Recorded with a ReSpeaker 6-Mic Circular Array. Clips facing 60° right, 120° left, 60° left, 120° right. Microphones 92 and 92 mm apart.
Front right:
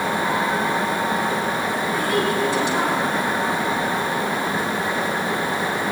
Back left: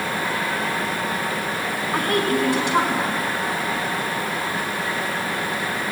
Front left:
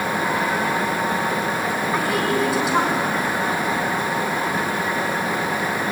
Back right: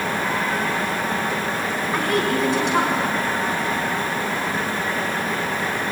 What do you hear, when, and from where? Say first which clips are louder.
1.9 s a woman speaking: back left 2 dB, back right 1 dB; 145° left, 5.5 m